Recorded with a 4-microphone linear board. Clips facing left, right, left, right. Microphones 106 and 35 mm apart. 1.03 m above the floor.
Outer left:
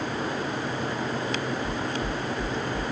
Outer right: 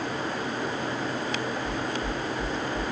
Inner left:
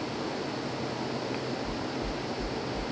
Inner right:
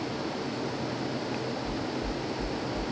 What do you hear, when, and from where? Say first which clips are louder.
1.6 s knocking: even, inner right 1 dB; 35° left (ahead or behind), 4.5 m